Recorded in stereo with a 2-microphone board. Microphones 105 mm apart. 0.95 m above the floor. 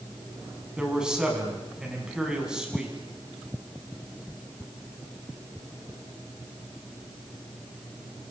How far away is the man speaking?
About 7 m.